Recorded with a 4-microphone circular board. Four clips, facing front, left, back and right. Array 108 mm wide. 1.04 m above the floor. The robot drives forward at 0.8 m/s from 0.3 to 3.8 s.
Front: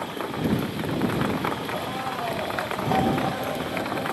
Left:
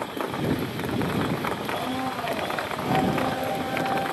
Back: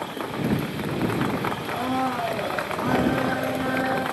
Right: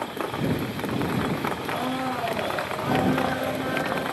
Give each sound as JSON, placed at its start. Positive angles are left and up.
{"t": 1.7, "sound": "a blender", "azimuth_deg": -150, "distance_m": 5.0}